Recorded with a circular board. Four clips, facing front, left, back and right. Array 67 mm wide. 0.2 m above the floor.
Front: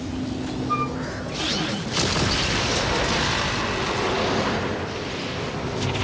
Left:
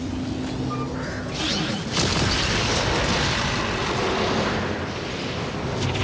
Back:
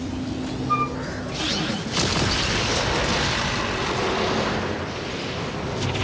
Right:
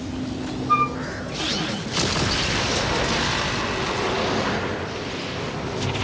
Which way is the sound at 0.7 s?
100° right.